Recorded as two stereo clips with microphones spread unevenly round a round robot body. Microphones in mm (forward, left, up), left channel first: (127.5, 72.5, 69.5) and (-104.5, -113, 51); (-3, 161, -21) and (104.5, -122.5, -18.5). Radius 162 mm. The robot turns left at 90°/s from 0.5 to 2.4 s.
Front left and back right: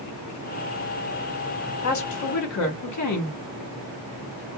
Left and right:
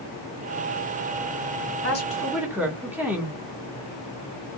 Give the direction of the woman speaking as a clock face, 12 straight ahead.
10 o'clock.